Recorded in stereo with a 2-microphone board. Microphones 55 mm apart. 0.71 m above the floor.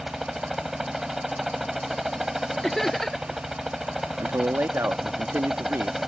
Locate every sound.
0.0 s a helicopter: 5° right (ahead or behind)
2.6 s laughter: 5° left (ahead or behind)
4.2 s a man speaking: 45° right (ahead or behind)